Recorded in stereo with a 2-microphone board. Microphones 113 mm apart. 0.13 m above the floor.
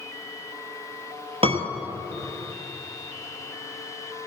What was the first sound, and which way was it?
A piano, 55° right (ahead or behind).